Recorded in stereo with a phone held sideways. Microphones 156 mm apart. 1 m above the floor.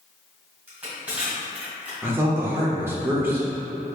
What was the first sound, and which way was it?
Crushing, 10° right (ahead or behind).